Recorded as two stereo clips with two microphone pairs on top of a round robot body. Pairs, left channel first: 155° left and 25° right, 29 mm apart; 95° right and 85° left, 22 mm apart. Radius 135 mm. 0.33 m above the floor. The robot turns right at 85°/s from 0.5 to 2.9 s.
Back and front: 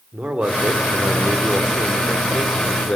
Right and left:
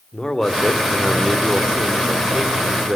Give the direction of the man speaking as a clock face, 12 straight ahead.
2 o'clock.